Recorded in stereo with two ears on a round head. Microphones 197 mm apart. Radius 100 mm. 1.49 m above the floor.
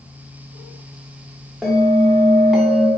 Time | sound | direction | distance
1.6 | a bell | centre (ahead or behind) | 0.5 m